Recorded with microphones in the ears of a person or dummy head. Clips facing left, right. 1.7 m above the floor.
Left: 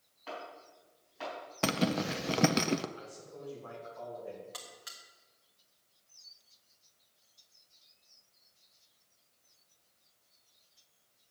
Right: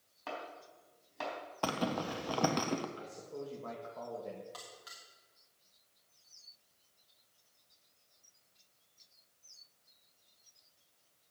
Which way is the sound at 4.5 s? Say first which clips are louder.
Left 1 dB; 40° left (ahead or behind).